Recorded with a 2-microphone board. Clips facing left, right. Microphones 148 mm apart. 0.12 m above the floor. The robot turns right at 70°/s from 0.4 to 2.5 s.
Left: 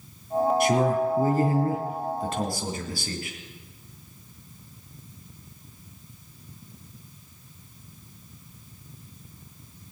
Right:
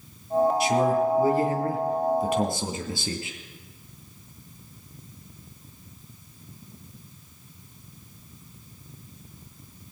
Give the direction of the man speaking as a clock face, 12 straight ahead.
10 o'clock.